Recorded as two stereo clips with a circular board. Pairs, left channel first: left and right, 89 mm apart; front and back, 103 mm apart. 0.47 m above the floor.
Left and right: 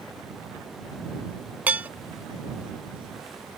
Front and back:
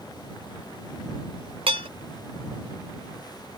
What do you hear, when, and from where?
1.7 s dishes clattering: 160° right